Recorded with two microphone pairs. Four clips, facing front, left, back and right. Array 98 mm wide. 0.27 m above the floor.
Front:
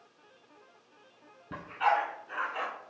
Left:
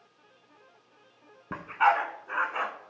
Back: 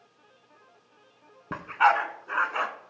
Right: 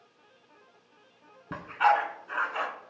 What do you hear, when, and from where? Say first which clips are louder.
1.5 s a dog barking: even, back 6 dB; 170° left, 0.7 m